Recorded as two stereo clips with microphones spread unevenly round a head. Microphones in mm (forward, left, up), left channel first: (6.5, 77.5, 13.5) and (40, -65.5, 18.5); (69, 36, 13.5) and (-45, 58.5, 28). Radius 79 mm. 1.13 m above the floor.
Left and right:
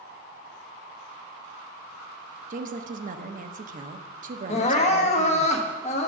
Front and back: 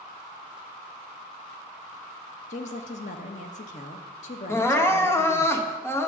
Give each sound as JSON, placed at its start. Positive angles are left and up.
{"t": 2.5, "sound": "a woman speaking", "azimuth_deg": -40, "distance_m": 1.0}
{"t": 4.5, "sound": "crying", "azimuth_deg": 55, "distance_m": 1.3}